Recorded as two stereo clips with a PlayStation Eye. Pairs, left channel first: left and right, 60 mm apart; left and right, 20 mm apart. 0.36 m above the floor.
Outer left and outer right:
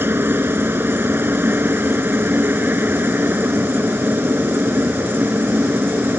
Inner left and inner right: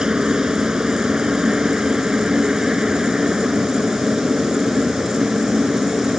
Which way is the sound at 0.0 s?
35° right (ahead or behind).